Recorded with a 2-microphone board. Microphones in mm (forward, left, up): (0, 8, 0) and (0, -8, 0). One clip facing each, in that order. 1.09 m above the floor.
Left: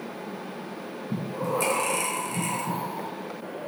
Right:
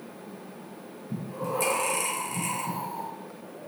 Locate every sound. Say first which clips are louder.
1.1 s breathing: left 3 dB; 5° left (ahead or behind), 1.0 m